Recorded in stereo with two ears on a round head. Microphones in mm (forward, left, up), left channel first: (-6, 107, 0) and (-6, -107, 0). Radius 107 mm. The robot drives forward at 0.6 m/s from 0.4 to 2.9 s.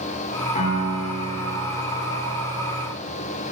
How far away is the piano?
About 3 m.